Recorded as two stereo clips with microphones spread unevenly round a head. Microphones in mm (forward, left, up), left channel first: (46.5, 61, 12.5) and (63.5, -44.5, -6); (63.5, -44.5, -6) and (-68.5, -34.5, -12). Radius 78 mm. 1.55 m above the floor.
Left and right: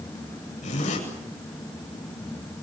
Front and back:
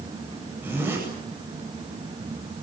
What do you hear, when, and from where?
0.6 s a zipper: 95° left, 9 m